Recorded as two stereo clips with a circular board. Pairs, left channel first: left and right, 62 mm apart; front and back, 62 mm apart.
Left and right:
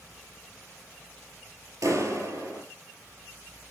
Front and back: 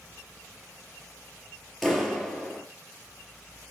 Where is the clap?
85° right, 3 m.